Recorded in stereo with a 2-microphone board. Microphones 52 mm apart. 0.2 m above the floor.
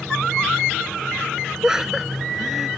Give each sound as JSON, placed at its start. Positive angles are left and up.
{"t": 1.6, "sound": "laughter", "side_deg": -10}